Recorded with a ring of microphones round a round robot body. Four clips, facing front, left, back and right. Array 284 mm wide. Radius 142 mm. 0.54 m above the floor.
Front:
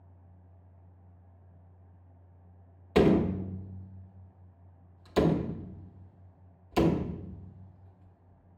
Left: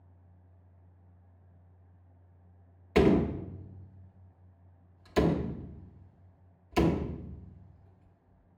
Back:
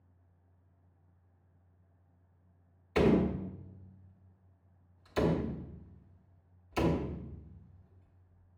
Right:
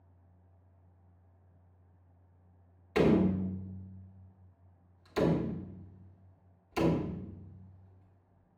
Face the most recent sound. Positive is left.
turn(degrees=30)